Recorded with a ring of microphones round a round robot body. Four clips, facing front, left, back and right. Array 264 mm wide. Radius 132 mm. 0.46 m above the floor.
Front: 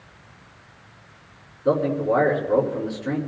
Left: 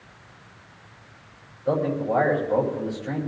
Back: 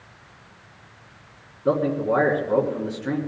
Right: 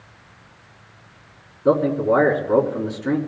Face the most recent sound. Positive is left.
turn(degrees=-100)